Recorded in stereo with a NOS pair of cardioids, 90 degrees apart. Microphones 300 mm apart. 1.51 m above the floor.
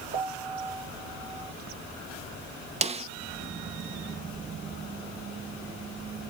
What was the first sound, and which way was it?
A piano, 40° right.